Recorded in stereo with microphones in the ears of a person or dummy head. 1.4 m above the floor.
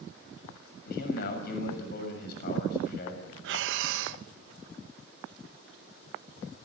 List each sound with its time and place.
0.9 s a man speaking: 55° left (ahead or behind), 6 m
3.4 s breathing: 75° right (ahead or behind), 1.2 m